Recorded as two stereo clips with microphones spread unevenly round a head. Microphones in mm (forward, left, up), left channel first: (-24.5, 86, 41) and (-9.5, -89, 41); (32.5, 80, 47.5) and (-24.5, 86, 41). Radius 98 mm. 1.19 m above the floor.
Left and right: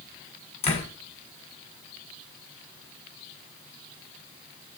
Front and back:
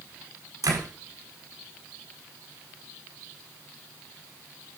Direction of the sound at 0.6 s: 150° left.